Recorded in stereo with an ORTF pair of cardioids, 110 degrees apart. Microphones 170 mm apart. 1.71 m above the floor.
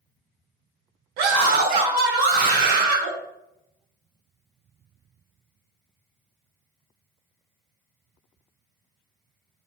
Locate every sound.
1.2 s a scream: 70° right, 2 m